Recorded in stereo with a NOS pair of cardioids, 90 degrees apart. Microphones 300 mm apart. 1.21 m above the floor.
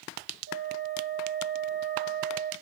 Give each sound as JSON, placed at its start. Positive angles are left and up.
{"t": 0.5, "sound": "a flute", "azimuth_deg": -45, "distance_m": 1.6}